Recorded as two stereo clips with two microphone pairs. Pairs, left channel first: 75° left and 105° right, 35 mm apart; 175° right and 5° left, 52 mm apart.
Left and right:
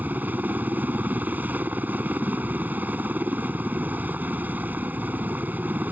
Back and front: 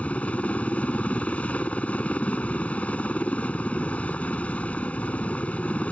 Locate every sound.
0.0 s a helicopter: 115° right